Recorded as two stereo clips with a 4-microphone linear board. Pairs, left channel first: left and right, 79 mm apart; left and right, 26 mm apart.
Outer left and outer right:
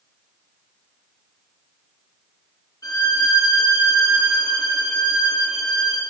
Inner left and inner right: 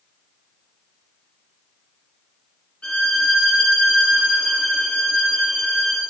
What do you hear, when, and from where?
2.8 s a violin: 50° left (ahead or behind), 2 m